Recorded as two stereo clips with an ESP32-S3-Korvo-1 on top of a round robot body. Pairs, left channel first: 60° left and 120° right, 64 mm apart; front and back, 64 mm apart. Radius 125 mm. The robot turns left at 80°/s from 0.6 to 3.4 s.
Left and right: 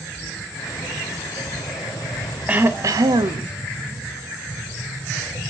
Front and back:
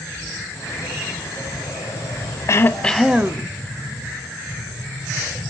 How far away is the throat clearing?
About 0.5 m.